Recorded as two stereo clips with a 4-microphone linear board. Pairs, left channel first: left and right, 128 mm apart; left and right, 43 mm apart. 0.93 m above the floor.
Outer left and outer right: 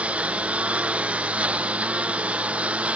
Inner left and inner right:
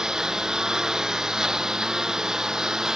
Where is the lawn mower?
10° right (ahead or behind).